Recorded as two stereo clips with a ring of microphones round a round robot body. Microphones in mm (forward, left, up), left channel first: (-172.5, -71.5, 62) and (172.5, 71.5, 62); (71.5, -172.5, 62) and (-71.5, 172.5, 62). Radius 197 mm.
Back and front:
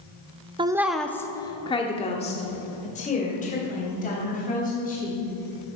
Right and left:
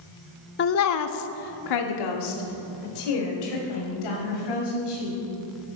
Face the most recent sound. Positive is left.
turn(degrees=-90)